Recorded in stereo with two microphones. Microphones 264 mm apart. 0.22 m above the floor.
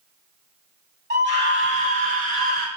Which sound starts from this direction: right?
A scream, at 1.1 s.